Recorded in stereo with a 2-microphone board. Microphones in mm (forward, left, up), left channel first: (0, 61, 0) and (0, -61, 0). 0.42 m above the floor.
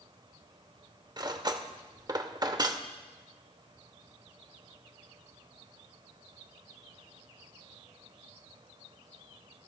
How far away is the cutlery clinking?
About 0.7 m.